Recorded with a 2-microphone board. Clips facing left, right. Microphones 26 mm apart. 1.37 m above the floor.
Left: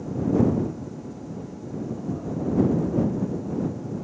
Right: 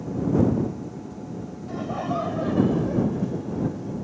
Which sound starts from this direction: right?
Laughter, at 1.7 s.